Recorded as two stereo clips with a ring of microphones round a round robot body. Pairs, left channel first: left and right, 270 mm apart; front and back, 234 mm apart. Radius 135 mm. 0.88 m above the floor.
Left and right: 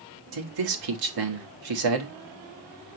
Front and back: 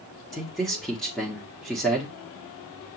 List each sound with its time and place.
0.3 s a man speaking: 90° right, 1.4 m